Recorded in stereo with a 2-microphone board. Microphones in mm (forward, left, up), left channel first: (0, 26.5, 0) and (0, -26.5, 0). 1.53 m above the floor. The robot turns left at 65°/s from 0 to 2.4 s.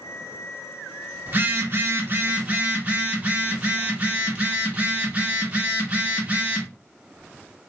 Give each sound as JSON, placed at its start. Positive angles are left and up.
{"t": 1.3, "sound": "a phone buzzing", "azimuth_deg": -70, "distance_m": 1.0}